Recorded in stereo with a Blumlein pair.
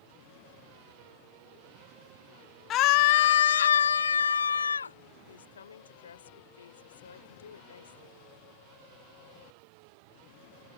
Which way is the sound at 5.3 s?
70° left.